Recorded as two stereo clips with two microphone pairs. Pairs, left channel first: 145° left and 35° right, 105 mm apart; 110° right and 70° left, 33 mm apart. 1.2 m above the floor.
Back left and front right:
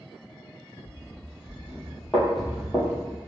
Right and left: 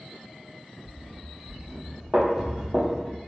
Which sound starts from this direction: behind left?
Running footsteps, at 0.8 s.